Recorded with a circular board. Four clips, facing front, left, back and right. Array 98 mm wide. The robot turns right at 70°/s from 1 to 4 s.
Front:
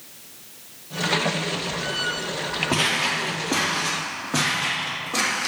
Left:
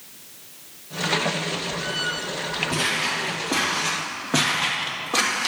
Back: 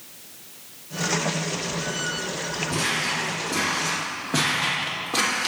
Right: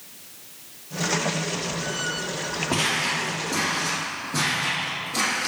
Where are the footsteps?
25° right, 2 m; by 5.5 s 105° left, 3 m.